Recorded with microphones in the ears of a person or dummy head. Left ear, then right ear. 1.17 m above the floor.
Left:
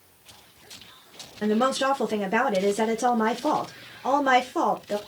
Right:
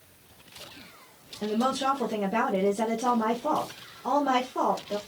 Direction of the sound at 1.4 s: 50° left (ahead or behind).